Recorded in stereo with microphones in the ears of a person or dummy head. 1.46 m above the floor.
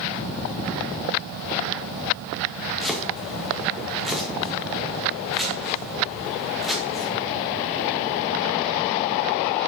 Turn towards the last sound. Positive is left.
turn(degrees=-10)  # may be behind; listen again after turning